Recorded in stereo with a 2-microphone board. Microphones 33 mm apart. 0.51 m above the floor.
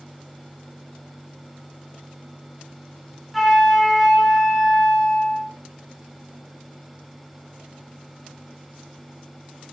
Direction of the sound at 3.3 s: Centre (ahead or behind).